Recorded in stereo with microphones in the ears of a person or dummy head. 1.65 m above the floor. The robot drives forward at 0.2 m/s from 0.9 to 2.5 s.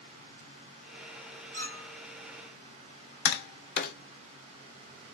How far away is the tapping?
About 0.7 m.